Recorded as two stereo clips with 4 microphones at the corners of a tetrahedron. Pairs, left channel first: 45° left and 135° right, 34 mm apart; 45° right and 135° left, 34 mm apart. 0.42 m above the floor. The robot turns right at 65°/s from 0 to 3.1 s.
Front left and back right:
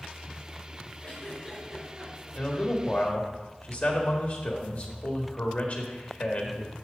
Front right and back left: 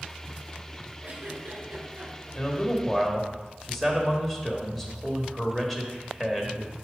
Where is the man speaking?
10° right, 1.4 m; by 6.8 s 35° left, 1.4 m.